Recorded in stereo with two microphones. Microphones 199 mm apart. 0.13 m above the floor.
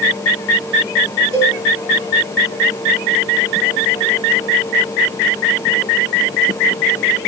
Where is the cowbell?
15° right (ahead or behind), 8.5 m.